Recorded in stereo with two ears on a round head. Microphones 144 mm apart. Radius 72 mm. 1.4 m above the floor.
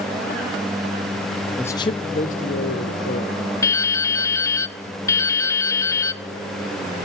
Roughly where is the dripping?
Centre.